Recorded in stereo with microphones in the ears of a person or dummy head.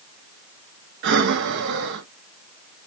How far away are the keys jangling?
No keys jangling in this recording.